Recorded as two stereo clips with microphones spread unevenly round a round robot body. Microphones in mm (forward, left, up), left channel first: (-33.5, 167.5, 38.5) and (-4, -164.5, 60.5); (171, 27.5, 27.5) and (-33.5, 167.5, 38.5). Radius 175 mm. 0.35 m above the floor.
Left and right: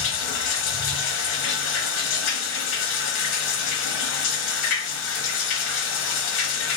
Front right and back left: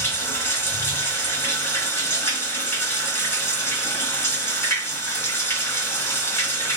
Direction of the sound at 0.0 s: 45° left.